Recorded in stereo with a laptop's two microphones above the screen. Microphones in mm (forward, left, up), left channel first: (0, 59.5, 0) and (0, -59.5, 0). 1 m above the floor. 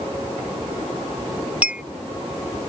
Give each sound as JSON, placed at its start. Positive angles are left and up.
{"t": 1.6, "sound": "a clink", "side_deg": -10}